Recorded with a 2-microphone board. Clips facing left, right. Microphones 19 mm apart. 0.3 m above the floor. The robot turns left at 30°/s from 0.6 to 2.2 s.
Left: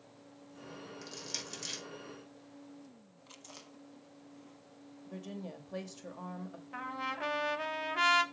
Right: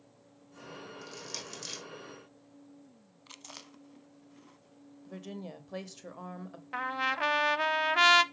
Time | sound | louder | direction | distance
1.0 | crushing | left 2 dB | 20° left (ahead or behind) | 3 m
3.3 | chewing | right 4 dB | 30° right (ahead or behind) | 0.7 m
5.1 | a woman speaking | right 1 dB | 20° right (ahead or behind) | 0.9 m
6.7 | a trumpet | right 7 dB | 40° right (ahead or behind) | 0.6 m